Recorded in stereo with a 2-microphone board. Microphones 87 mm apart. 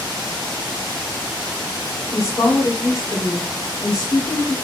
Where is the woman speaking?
40° left (ahead or behind), 1.6 m.